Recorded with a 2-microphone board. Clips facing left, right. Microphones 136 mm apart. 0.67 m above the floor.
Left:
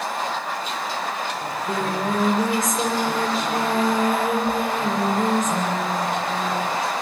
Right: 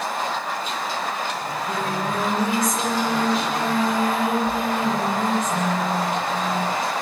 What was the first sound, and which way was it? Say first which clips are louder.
Singing: left 1 dB; 45° left (ahead or behind).